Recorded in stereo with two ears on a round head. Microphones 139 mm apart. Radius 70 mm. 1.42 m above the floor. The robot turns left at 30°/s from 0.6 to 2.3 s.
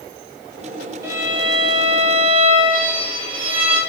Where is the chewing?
I don't hear chewing.